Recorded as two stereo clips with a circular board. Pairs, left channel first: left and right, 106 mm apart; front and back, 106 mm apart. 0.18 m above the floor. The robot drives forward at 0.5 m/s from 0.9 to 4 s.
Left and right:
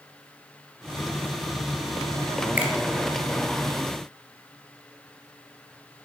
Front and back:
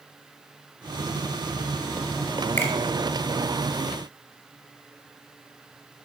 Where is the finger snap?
35° right, 1.1 m; by 2.7 s 40° right, 1.0 m.